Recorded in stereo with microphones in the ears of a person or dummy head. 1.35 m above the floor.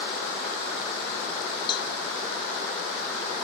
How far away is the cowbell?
About 1.0 m.